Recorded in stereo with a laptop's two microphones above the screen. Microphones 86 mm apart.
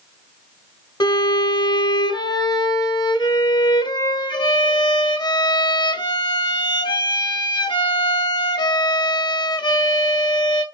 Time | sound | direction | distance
1.0 | a violin | 60° left (ahead or behind) | 1.4 m